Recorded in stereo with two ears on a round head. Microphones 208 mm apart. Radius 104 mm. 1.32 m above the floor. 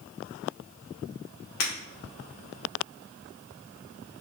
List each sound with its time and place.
1.6 s breaking glass: 70° left (ahead or behind), 1.9 m